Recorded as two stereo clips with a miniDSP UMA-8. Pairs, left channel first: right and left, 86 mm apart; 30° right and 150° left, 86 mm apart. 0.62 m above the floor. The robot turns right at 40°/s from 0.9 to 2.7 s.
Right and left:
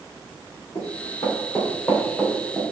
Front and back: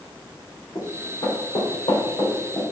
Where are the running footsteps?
80° right, 3 m; by 2.6 s 10° left, 3 m.